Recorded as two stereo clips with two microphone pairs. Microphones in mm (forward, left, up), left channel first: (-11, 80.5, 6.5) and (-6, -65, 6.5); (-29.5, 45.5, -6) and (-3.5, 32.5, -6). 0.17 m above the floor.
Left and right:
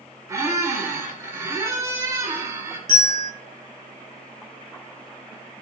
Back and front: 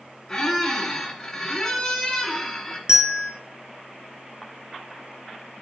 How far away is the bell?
About 2.0 m.